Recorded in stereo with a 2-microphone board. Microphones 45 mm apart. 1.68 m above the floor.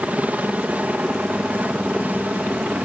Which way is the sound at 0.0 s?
35° right (ahead or behind).